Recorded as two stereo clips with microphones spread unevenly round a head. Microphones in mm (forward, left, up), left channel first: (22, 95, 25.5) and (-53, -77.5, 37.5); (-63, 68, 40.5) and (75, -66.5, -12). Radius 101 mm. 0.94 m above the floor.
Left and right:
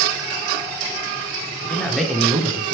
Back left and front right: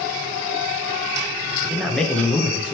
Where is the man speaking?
5° left, 0.7 m; by 2.8 s 155° right, 0.7 m.